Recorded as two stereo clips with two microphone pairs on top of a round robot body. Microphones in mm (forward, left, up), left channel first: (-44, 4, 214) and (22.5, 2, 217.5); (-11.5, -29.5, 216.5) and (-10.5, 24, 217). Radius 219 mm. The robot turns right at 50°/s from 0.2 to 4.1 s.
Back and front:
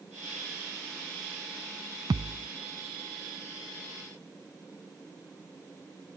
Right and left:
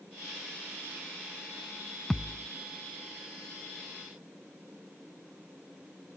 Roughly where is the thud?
Ahead.